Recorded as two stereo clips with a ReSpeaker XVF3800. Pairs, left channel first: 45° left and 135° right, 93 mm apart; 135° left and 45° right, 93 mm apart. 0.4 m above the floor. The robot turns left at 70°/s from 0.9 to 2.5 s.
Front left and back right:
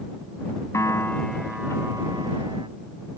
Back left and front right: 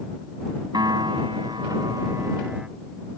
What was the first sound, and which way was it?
A piano, 10° right.